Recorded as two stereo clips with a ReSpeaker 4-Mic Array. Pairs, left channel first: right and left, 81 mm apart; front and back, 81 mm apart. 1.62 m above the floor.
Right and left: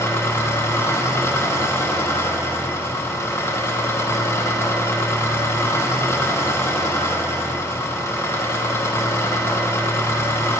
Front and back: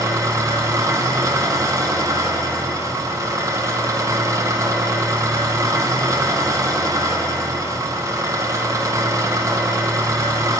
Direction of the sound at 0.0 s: 140° right.